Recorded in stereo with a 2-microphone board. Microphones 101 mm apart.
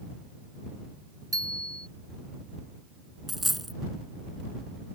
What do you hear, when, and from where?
1.3 s a bicycle bell: 40° right (ahead or behind)
3.3 s a dropped coin: centre (ahead or behind)